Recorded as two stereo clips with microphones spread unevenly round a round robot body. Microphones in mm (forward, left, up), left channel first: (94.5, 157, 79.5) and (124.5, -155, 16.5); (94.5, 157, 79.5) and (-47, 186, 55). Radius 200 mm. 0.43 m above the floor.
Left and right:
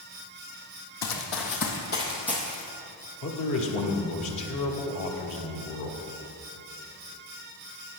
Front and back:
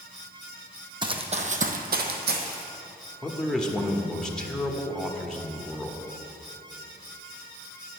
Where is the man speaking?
85° left, 1.6 m.